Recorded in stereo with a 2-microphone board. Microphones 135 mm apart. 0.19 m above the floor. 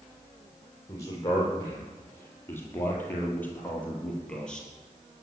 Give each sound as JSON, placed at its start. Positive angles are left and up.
{"t": 0.9, "sound": "a man speaking", "side_deg": 25, "distance_m": 6.5}